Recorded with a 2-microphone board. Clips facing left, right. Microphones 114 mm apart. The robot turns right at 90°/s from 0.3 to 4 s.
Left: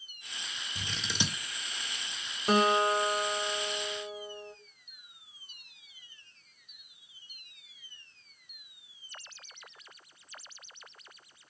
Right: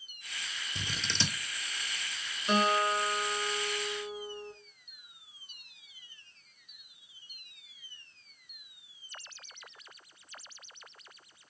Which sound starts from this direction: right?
Scissors, at 0.8 s.